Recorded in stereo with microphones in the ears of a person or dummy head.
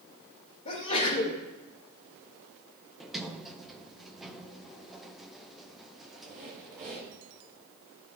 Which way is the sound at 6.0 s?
40° right (ahead or behind).